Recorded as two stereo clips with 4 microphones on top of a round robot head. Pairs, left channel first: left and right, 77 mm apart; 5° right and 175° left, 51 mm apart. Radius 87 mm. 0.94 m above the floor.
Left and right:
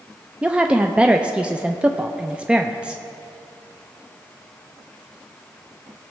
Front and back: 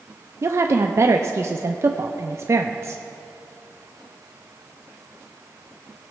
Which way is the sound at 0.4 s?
165° right.